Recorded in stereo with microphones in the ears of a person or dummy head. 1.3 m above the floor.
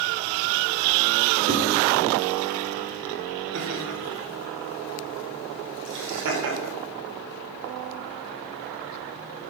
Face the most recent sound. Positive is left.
turn(degrees=-55)  # may be behind; listen again after turning